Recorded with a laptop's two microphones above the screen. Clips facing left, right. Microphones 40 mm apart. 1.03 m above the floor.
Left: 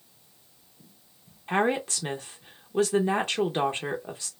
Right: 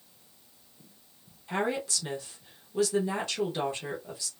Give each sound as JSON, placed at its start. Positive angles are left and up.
{"t": 1.5, "sound": "a woman speaking", "side_deg": 40, "distance_m": 0.6}